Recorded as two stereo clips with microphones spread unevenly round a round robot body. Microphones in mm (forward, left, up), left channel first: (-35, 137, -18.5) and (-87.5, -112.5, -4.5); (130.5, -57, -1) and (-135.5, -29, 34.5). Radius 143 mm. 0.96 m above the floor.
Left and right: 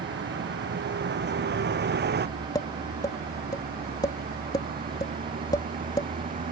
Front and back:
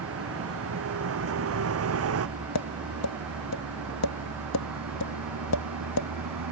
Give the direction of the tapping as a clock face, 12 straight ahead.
12 o'clock.